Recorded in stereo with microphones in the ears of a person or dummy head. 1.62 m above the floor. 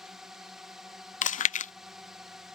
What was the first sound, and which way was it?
A drone, centre (ahead or behind).